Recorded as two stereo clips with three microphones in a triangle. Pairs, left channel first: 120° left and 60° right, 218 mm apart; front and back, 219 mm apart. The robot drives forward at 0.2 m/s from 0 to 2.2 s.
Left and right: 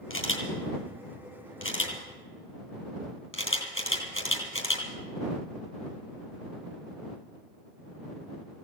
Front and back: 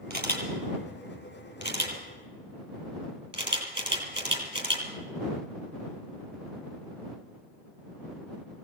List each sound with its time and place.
0.1 s a camera shutter: 135° left, 2.5 m; by 4.9 s 145° left, 3 m